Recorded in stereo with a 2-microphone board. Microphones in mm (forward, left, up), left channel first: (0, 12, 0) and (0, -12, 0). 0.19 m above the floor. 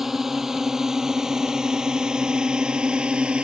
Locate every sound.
0.0 s a drone: 15° right (ahead or behind); by 3.4 s 45° right (ahead or behind)